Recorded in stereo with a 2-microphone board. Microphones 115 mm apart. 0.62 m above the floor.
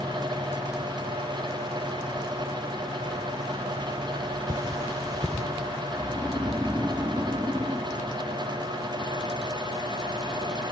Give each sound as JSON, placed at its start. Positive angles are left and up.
{"t": 4.5, "sound": "cutlery clinking", "side_deg": -30, "distance_m": 1.3}
{"t": 6.0, "sound": "snoring", "side_deg": -25, "distance_m": 1.0}